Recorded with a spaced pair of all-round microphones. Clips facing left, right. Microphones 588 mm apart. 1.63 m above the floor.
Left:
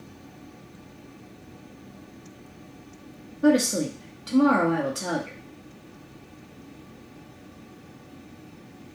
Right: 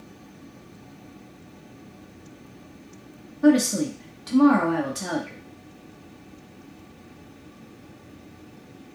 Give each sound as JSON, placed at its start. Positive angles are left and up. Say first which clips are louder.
{"t": 3.4, "sound": "a woman speaking", "louder": "right 2 dB", "side_deg": -20, "distance_m": 0.7}